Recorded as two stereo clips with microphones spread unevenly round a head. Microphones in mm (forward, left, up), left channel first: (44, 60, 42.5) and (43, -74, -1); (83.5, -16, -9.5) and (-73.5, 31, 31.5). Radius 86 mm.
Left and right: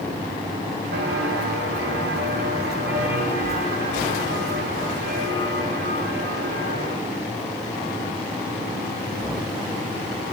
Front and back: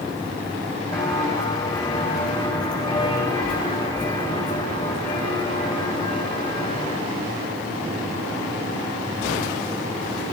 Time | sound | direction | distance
0.9 | footsteps | 90° right | 4.5 m